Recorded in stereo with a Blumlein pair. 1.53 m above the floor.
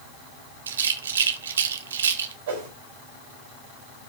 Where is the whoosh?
60° right, 3.5 m.